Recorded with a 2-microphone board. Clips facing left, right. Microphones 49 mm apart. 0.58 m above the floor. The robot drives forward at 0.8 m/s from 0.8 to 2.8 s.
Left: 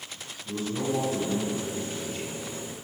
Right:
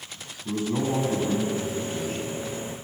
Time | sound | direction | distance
0.5 | a man speaking | 70° right (ahead or behind) | 5 m